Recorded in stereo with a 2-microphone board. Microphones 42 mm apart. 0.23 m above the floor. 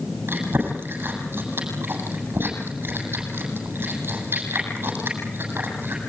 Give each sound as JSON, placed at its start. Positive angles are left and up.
{"t": 0.3, "sound": "chewing", "side_deg": -60, "distance_m": 7.5}